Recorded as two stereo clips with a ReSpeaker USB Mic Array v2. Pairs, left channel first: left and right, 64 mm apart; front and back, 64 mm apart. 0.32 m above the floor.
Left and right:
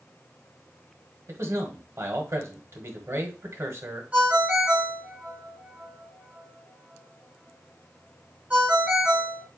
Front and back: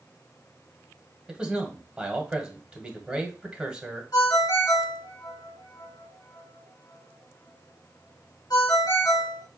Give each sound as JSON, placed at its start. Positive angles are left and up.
{"t": 1.3, "sound": "a man speaking", "azimuth_deg": -105, "distance_m": 1.4}
{"t": 4.1, "sound": "a ringtone", "azimuth_deg": -15, "distance_m": 1.1}